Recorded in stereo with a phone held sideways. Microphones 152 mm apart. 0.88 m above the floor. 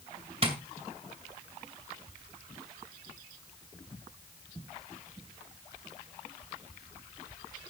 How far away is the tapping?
About 2 m.